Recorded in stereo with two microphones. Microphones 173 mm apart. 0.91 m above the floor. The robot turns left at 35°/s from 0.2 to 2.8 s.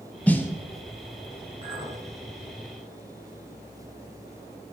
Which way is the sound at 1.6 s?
35° right (ahead or behind).